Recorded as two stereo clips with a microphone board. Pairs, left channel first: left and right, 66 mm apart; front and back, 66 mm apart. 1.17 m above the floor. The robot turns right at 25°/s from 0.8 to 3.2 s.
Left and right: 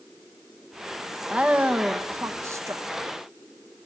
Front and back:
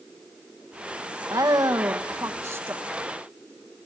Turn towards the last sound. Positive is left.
turn(degrees=-115)